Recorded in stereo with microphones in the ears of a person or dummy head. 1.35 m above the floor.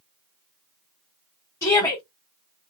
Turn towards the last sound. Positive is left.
turn(degrees=20)  # may be behind; listen again after turning